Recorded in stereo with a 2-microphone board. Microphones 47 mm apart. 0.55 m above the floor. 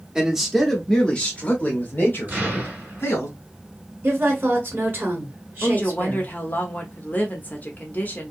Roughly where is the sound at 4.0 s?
Right.